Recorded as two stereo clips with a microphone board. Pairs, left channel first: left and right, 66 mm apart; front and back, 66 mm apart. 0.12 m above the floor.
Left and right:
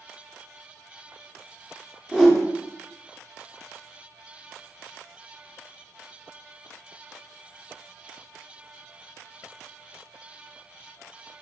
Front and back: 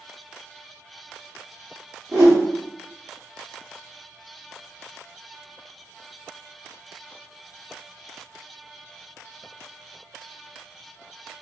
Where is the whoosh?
165° right, 1.6 m.